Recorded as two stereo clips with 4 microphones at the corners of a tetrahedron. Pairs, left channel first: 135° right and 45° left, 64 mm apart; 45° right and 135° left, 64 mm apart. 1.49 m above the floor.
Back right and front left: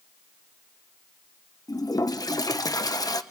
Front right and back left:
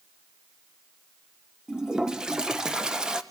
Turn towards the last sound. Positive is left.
turn(degrees=-145)